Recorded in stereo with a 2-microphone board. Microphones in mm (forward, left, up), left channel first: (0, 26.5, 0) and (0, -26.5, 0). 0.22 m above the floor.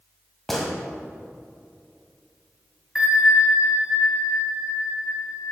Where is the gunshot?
5° left (ahead or behind), 1.5 m.